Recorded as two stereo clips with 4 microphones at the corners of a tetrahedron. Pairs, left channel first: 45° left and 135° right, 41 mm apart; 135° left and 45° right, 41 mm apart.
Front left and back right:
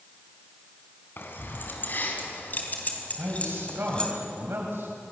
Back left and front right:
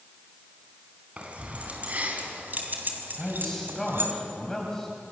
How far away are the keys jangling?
About 4 m.